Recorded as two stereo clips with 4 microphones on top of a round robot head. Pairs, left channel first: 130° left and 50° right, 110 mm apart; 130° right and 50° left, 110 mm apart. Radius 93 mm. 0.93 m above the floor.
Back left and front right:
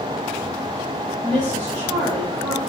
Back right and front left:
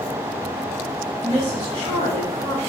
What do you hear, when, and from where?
1.2 s a woman speaking: 35° left, 2.5 m